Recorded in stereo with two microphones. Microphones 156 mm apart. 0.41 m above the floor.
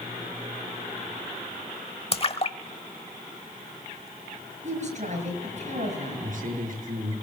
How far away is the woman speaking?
About 6.5 m.